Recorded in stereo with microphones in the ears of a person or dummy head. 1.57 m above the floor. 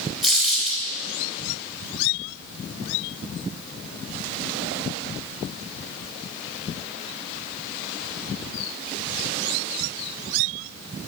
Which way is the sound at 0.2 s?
Centre (ahead or behind).